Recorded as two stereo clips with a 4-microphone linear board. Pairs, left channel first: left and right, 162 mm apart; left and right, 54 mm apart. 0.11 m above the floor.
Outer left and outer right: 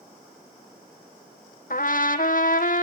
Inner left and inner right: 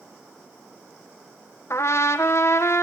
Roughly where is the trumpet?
Left.